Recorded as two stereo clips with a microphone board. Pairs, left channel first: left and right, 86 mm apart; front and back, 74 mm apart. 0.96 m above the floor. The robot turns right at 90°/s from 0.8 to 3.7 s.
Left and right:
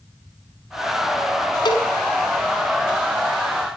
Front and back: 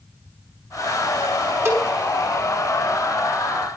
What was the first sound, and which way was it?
A cowbell, 125° left.